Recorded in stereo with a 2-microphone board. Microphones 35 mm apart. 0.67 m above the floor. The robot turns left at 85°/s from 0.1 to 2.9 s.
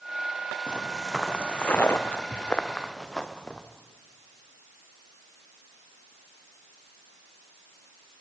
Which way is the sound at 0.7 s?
30° right (ahead or behind).